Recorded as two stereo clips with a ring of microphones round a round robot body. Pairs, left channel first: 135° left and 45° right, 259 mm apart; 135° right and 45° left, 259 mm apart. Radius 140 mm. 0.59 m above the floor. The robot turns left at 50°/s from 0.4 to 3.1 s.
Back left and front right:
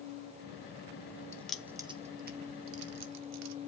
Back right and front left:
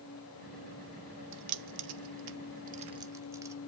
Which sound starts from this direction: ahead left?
Keys jangling, at 1.3 s.